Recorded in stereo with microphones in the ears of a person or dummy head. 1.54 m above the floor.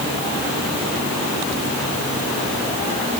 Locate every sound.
Only background noise.